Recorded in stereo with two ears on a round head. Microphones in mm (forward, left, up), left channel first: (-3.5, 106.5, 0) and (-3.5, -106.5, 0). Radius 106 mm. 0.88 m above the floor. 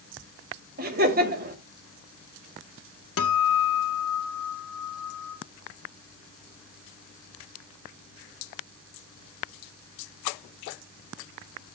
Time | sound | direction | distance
0.8 | laughter | 40° right (ahead or behind) | 2 m
3.2 | a guitar | 65° left (ahead or behind) | 1.6 m